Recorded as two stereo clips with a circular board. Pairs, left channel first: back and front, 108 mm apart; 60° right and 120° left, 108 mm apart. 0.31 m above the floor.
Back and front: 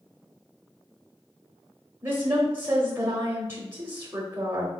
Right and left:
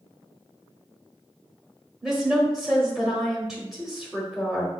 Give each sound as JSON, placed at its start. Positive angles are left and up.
{"t": 2.0, "sound": "a woman speaking", "azimuth_deg": 40, "distance_m": 0.9}